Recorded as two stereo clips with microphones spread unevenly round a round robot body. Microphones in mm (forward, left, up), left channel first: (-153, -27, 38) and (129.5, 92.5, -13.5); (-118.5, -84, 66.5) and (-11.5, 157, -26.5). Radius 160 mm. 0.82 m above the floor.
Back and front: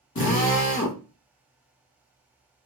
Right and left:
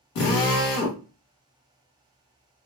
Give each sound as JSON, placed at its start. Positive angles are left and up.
{"t": 0.1, "sound": "a drill", "azimuth_deg": -100, "distance_m": 1.3}